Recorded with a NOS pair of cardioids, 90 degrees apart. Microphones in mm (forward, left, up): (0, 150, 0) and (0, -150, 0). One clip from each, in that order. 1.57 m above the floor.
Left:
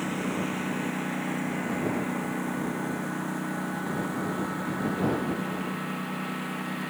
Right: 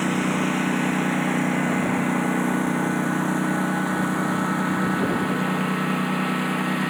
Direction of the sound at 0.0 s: 55° right.